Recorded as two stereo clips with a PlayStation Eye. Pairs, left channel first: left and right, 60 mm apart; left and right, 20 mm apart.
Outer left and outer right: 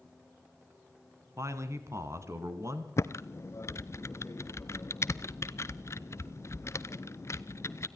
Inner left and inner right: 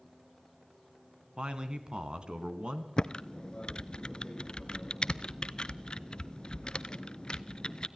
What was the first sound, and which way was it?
A man speaking, 55° right (ahead or behind).